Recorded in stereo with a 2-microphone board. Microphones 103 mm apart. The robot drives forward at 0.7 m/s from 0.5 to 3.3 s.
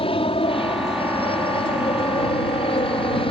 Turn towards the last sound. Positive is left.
turn(degrees=65)  # may be behind; listen again after turning